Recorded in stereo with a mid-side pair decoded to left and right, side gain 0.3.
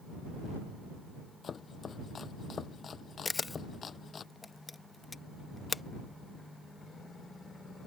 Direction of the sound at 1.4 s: 65° left.